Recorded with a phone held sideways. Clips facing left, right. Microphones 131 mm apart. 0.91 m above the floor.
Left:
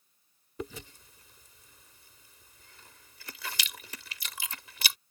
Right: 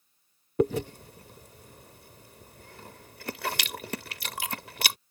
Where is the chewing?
65° right (ahead or behind).